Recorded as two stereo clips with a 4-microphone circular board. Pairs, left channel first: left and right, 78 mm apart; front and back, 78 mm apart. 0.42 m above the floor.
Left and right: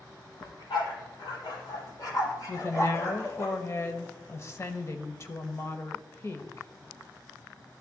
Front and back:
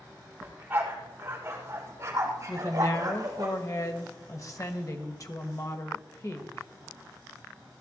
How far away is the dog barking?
About 3.5 m.